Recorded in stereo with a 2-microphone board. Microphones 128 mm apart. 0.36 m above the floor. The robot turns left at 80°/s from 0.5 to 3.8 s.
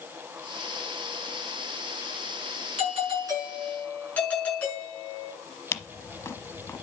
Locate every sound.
2.8 s a doorbell: 110° right, 6 m; by 5.3 s 165° left, 6 m
5.7 s a camera shutter: 20° left (ahead or behind), 0.7 m